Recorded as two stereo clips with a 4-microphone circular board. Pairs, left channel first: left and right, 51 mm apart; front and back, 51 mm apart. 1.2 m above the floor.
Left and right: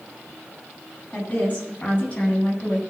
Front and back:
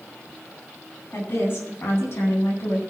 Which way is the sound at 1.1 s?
30° left.